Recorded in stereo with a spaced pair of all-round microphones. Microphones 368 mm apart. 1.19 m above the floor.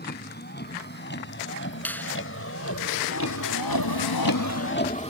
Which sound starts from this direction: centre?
A finger snap, at 1.9 s.